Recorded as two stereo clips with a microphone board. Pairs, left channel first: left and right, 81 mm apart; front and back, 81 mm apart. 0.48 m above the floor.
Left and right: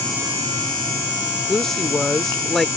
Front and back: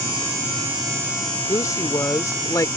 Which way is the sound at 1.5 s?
10° left.